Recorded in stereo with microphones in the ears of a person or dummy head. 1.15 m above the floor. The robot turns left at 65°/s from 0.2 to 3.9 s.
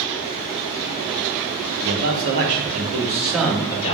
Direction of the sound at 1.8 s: 75° right.